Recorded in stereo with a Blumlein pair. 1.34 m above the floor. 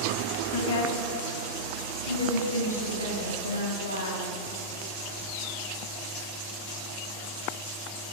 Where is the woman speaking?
65° left, 1.5 m; by 4.2 s 75° left, 5.5 m.